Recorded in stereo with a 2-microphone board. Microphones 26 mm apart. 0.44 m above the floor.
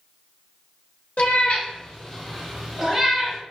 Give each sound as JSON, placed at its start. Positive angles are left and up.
{"t": 1.2, "sound": "a cat meowing", "side_deg": 60, "distance_m": 0.6}